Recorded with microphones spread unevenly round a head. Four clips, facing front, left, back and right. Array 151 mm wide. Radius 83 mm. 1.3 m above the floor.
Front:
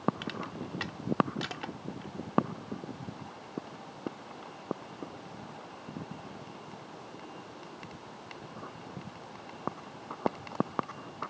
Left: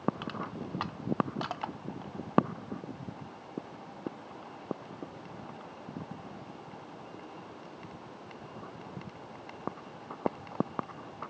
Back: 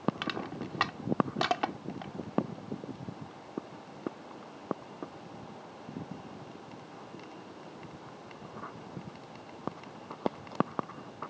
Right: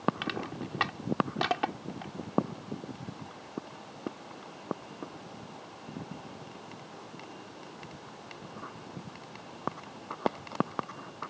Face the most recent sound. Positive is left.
turn(degrees=-140)